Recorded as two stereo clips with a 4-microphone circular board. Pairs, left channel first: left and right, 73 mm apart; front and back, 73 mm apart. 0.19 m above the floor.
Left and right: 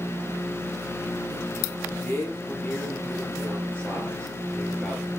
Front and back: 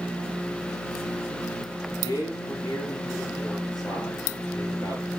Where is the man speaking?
25° left, 5 m; by 5.1 s 10° left, 4 m.